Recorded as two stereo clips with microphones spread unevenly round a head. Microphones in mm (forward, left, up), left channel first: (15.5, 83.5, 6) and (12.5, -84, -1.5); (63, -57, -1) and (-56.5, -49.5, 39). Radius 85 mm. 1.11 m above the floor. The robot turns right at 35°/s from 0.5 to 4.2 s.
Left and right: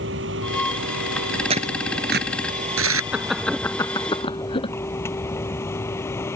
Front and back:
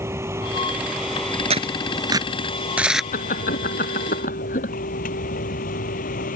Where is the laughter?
10° right; by 4.7 s 30° left.